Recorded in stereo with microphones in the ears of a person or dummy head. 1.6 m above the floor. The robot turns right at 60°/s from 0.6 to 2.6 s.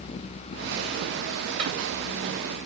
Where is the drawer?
45° right (ahead or behind), 1.4 m; by 1.7 s 50° right (ahead or behind), 1.4 m.